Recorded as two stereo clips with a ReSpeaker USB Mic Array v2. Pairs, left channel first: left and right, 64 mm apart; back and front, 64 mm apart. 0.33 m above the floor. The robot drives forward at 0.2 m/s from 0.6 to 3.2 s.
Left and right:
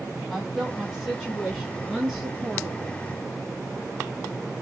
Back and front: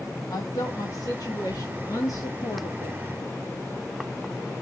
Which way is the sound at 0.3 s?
Straight behind.